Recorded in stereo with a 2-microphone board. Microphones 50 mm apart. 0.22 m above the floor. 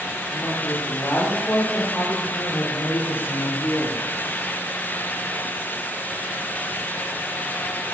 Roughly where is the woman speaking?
Left.